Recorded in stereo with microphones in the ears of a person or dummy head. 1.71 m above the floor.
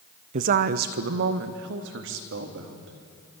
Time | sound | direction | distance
0.3 | a woman speaking | 40° right (ahead or behind) | 0.9 m